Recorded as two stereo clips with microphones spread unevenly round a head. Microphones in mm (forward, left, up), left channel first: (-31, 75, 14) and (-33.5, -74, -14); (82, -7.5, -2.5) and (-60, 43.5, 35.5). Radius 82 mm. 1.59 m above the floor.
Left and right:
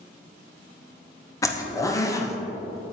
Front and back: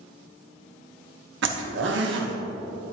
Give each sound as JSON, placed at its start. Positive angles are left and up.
{"t": 1.4, "sound": "a zipper", "azimuth_deg": 160, "distance_m": 1.0}